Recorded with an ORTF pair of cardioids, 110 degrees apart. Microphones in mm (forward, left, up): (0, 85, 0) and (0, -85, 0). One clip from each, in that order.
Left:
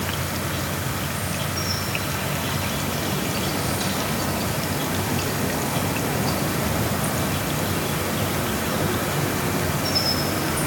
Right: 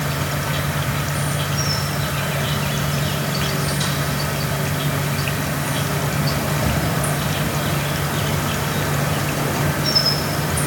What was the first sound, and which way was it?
An insect, 30° right.